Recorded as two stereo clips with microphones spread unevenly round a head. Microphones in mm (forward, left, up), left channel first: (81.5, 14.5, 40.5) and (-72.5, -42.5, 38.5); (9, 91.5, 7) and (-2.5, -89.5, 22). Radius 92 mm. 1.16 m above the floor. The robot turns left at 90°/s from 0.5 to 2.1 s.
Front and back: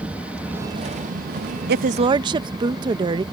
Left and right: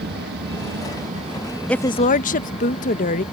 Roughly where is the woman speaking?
Behind.